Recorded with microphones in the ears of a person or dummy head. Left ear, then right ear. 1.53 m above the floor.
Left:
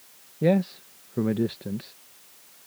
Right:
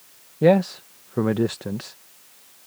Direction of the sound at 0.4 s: 35° right (ahead or behind).